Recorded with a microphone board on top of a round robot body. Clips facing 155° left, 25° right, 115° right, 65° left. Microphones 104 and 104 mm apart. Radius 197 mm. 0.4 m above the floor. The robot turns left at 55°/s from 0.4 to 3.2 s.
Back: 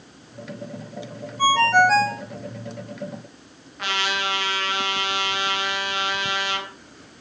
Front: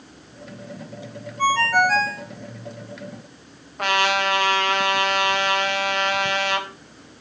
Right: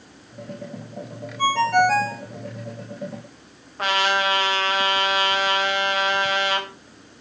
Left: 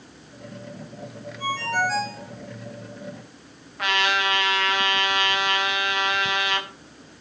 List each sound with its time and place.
1.4 s a ringtone: 120° right, 2.5 m; by 2.2 s 165° right, 2.5 m
3.8 s a trumpet: 60° right, 3.5 m